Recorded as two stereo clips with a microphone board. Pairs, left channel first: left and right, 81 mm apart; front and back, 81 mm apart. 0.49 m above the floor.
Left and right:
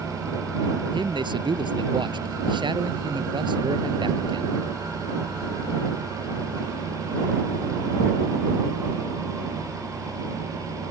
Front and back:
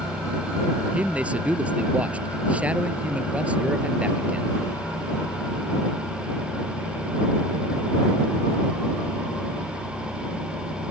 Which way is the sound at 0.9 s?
105° right.